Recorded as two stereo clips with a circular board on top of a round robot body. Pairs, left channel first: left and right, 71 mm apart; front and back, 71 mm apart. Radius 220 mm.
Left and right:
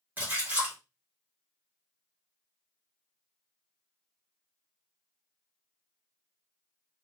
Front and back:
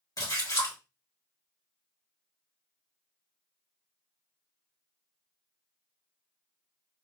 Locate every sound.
0.2 s a splash: 25° right, 1.9 m